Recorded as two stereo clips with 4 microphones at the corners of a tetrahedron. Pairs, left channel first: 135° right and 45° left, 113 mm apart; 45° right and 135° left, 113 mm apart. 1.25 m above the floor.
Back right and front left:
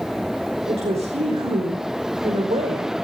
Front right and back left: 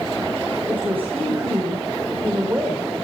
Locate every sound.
0.7 s a woman speaking: 60° left, 5 m